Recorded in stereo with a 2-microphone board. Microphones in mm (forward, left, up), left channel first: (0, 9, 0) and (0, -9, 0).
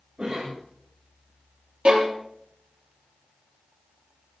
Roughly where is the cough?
Right.